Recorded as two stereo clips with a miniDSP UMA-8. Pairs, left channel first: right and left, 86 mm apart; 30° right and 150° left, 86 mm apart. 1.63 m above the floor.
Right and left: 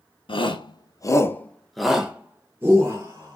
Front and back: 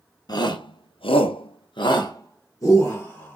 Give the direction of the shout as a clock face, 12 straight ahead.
2 o'clock.